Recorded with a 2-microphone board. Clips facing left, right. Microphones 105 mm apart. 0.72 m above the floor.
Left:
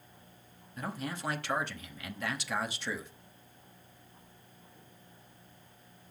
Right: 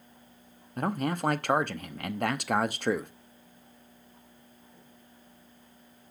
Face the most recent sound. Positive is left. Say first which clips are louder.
# right 9 dB
turn(degrees=-55)  # may be behind; listen again after turning